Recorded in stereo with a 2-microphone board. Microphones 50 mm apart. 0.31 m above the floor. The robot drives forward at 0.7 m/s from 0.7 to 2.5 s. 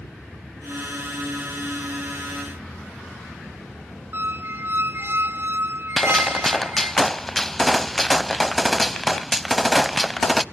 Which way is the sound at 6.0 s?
5° left (ahead or behind).